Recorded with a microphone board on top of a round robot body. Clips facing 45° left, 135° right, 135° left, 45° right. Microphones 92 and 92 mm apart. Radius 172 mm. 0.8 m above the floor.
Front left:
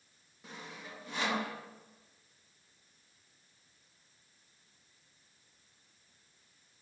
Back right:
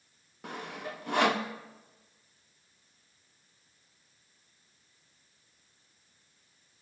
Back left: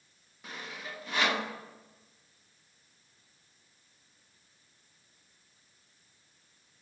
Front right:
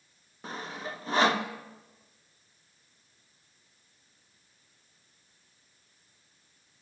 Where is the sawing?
105° right, 1.3 m.